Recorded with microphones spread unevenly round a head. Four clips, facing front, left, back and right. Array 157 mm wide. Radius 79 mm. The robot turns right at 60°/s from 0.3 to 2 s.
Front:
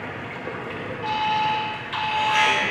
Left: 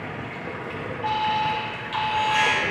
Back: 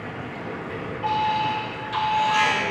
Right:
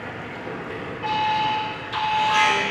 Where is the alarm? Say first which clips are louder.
Right 1 dB, even; 60° right, 2 m; by 2.6 s straight ahead, 2 m.